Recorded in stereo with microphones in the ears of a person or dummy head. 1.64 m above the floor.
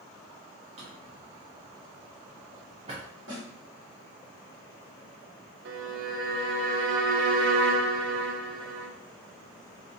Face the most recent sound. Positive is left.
turn(degrees=-70)  # may be behind; listen again after turning